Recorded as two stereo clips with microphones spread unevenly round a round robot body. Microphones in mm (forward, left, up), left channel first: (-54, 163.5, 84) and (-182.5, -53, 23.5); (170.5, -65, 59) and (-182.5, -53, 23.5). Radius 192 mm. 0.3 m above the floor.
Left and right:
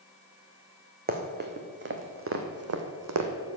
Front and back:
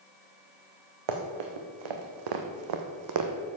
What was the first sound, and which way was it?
Running footsteps, straight behind.